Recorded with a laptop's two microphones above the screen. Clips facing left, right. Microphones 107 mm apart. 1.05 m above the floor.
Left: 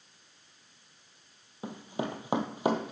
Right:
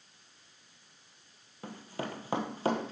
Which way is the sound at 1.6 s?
15° left (ahead or behind).